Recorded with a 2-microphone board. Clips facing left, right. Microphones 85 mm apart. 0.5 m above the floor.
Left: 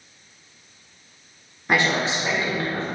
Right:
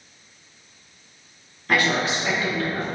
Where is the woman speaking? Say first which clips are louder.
Even; 20° left (ahead or behind), 1.0 m; by 2.9 s 35° left (ahead or behind), 2 m.